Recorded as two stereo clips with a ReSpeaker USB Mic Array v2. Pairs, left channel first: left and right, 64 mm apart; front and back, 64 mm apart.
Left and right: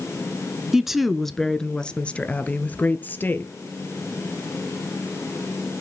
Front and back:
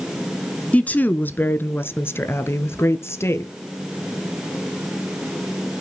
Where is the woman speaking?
20° right, 1.1 m; by 3.5 s 40° left, 1.9 m.